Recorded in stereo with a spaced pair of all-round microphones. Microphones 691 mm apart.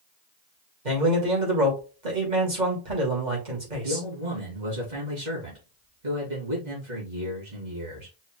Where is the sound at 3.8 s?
75° right (ahead or behind), 3 m.